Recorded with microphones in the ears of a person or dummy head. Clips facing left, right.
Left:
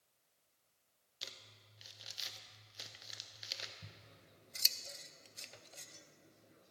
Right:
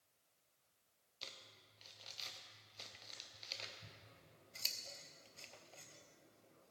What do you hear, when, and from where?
1.2 s crumpling: 15° left (ahead or behind), 0.9 m
3.8 s scissors: 20° left (ahead or behind), 0.5 m